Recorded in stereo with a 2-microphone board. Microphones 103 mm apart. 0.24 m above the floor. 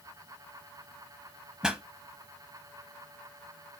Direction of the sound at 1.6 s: 10° right (ahead or behind).